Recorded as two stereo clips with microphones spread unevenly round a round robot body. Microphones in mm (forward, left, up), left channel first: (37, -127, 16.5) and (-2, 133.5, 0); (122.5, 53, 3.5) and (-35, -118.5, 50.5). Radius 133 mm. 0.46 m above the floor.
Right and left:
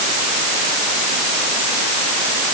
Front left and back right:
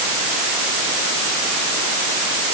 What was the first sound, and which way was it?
Only background noise.